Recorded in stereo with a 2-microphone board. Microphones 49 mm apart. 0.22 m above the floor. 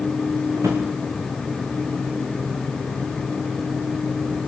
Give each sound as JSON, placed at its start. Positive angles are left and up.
{"t": 0.6, "sound": "a drawer", "side_deg": -85, "distance_m": 5.0}